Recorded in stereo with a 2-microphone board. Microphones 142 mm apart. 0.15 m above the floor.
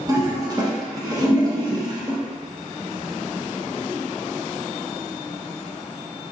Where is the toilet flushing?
30° right (ahead or behind), 0.9 m.